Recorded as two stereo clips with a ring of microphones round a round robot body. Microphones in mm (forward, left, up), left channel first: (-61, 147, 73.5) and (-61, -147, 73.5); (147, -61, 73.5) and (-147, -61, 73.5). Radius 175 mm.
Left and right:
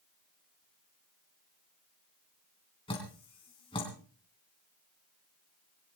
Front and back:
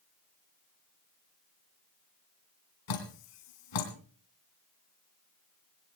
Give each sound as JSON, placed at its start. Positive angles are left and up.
{"t": 2.9, "sound": "dripping", "azimuth_deg": 15, "distance_m": 3.0}